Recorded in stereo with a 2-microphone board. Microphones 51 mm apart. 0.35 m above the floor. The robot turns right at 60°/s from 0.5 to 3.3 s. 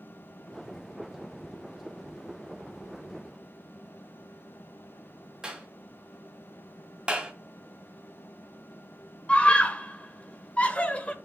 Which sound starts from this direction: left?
A scream, at 9.3 s.